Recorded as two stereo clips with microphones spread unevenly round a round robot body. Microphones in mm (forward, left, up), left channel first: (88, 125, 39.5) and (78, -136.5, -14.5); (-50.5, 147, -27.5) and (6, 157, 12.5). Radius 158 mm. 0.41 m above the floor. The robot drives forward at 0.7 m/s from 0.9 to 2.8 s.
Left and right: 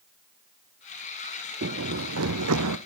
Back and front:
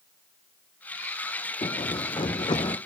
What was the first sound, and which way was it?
Running footsteps, 150° right.